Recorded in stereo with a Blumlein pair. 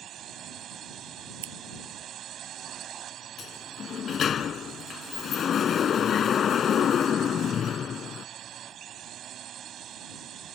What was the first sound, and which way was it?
A drone, 30° right.